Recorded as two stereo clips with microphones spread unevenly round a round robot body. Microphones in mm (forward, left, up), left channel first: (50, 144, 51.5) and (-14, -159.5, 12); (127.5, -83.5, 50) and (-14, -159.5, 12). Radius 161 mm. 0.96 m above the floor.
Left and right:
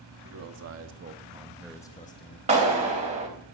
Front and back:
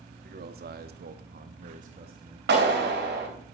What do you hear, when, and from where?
0.2 s a man speaking: 135° right, 1.5 m; by 2.4 s 135° left, 1.1 m
2.5 s a clap: 175° right, 3.5 m